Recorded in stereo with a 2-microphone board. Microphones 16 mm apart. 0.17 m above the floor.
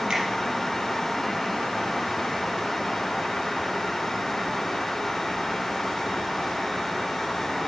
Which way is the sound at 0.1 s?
55° right (ahead or behind).